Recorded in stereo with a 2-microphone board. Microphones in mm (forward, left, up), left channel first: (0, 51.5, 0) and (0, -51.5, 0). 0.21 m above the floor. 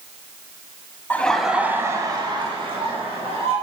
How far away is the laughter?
About 1.2 m.